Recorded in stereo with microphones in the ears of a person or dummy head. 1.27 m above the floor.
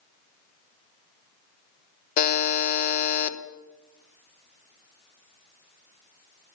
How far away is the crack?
I don't hear a crack.